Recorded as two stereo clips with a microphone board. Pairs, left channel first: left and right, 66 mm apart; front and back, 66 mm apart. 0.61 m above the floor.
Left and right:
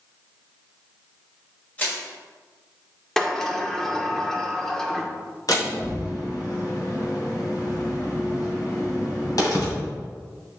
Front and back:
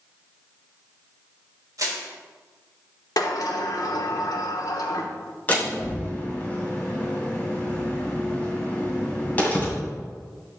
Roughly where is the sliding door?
Ahead.